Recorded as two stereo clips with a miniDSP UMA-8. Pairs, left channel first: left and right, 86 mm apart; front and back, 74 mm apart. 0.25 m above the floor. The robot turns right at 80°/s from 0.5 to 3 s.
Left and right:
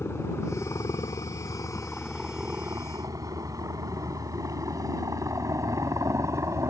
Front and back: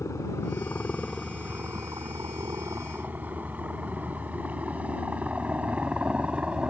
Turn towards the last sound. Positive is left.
turn(degrees=-115)